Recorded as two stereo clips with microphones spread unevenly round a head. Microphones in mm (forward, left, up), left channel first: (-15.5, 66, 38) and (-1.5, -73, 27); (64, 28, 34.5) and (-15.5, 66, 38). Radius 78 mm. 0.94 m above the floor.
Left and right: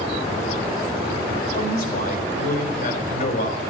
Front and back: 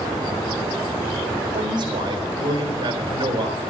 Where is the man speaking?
120° left, 4 m.